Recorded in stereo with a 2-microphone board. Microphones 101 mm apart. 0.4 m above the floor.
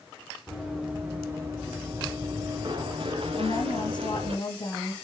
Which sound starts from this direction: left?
A woman speaking, at 3.4 s.